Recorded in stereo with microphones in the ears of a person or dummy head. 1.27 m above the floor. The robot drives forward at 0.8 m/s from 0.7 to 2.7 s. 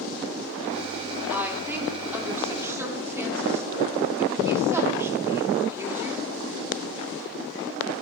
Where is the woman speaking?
10° right (ahead or behind), 3.5 m.